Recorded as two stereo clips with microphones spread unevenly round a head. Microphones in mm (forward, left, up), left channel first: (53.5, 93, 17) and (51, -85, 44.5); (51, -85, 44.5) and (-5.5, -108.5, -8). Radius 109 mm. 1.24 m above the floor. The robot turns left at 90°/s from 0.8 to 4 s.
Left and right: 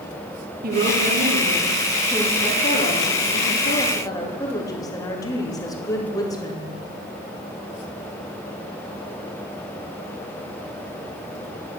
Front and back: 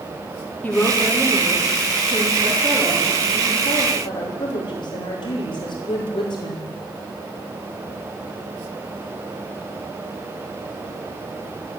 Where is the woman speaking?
50° right, 2.5 m; by 6.7 s 20° left, 2.5 m.